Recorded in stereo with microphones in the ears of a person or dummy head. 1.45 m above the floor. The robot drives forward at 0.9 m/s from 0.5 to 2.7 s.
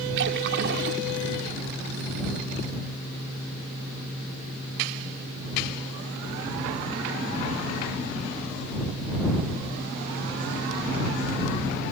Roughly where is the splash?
Right.